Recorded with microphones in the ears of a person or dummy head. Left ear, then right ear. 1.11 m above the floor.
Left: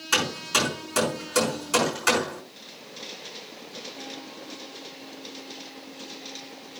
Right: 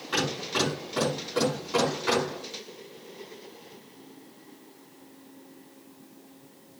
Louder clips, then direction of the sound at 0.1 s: Left 4 dB; 65° left (ahead or behind).